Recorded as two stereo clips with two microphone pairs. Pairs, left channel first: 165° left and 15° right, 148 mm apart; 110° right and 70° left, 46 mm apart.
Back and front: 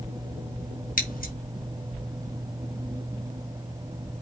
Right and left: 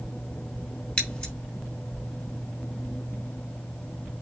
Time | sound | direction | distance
1.0 | scissors | 175° right | 4.5 m